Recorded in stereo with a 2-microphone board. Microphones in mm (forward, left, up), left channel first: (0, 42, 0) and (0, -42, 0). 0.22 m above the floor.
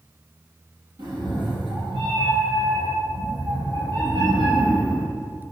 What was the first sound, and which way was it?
A cat meowing, 60° right (ahead or behind).